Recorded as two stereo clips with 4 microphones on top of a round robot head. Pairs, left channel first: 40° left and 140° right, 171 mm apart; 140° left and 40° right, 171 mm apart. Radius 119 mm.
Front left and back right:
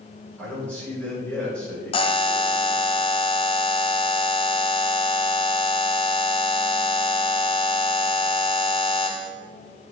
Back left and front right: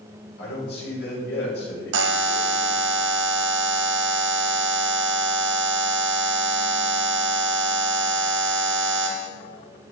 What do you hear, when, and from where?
0.4 s a man speaking: 120° left, 5 m
1.9 s a buzzer: 25° right, 0.6 m